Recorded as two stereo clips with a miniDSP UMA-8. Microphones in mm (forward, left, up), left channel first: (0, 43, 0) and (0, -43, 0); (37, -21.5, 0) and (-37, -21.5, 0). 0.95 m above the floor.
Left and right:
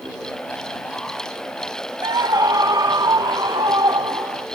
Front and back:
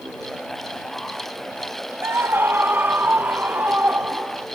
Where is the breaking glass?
I don't hear breaking glass.